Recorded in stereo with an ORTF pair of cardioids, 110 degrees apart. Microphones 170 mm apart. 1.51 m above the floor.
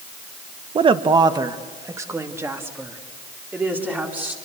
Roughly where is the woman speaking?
Ahead right.